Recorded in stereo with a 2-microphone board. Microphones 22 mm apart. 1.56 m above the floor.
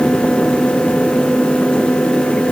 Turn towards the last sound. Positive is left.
No sound to turn to.